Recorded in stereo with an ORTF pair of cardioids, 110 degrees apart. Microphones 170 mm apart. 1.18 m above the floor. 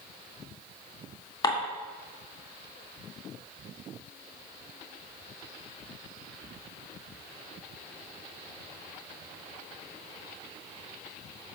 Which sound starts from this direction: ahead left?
Dishes clattering, at 1.4 s.